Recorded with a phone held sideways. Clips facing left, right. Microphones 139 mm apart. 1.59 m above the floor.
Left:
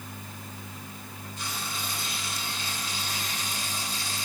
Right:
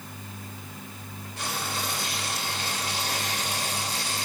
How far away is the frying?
About 3 m.